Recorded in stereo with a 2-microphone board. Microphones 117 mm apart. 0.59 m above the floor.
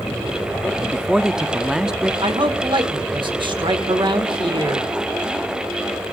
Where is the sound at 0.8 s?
5° right (ahead or behind), 0.6 m.